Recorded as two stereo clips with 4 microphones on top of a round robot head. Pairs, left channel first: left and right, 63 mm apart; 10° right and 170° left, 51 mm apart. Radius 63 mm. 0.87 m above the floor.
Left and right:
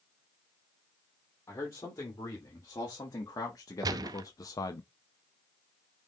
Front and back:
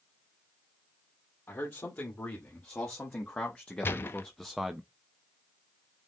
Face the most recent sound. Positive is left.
turn(degrees=-65)